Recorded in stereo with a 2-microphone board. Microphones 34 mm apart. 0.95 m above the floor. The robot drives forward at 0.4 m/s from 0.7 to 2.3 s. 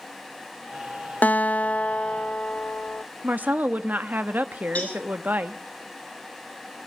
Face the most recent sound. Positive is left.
turn(degrees=45)  # may be behind; listen again after turning